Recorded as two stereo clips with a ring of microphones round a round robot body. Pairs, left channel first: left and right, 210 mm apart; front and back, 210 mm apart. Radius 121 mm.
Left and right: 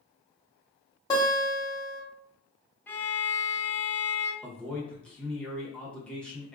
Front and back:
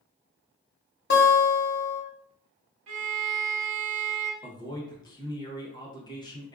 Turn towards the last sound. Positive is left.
turn(degrees=15)